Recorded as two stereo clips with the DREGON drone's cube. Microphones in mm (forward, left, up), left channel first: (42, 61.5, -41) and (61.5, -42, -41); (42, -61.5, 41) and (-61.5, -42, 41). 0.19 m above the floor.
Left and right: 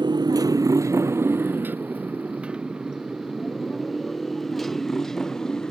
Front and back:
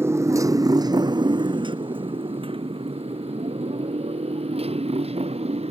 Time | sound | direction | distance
0.0 | a motorcycle | 125° right | ?